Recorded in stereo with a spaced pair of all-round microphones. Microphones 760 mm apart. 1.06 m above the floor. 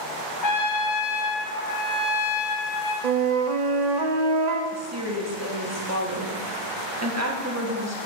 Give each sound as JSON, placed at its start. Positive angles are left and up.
{"t": 0.4, "sound": "a trumpet", "side_deg": 70, "distance_m": 1.0}
{"t": 3.0, "sound": "a flute", "side_deg": -60, "distance_m": 0.6}
{"t": 4.7, "sound": "a woman speaking", "side_deg": -20, "distance_m": 0.9}